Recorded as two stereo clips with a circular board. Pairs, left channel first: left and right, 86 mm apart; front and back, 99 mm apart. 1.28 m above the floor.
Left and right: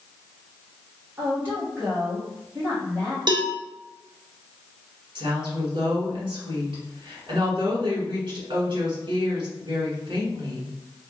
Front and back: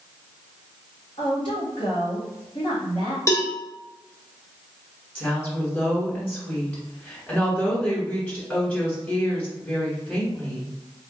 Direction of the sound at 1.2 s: 20° right.